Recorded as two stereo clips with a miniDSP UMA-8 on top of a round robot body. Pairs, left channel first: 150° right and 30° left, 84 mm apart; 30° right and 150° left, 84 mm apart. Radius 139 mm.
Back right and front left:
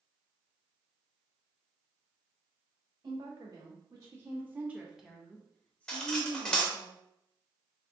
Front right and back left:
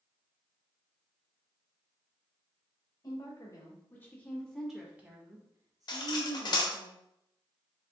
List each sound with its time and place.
3.0 s a woman speaking: straight ahead, 1.3 m; by 6.9 s 155° left, 1.4 m
5.9 s cutlery clinking: 70° right, 0.7 m